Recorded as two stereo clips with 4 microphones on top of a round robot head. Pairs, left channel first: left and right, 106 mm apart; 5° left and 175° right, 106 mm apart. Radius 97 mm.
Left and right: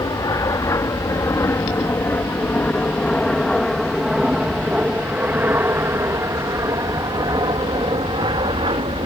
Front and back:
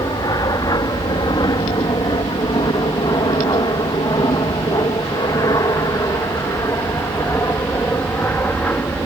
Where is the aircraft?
45° left; by 9.1 s 70° right.